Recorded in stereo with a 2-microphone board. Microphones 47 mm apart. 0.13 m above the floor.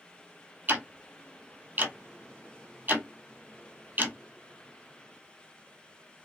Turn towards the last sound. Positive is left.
turn(degrees=-45)  # may be behind; listen again after turning